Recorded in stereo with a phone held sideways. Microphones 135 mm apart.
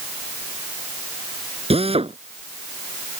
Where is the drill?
45° right (ahead or behind).